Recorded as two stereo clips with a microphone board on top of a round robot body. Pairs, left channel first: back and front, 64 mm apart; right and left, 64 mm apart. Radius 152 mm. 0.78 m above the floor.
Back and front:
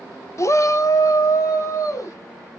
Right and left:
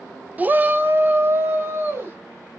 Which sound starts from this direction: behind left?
A shout, at 0.4 s.